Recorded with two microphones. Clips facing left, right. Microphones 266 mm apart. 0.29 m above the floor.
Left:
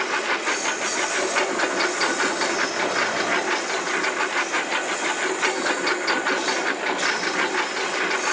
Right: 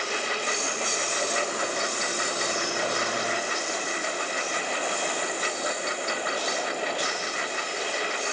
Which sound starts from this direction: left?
A lawn mower, at 0.0 s.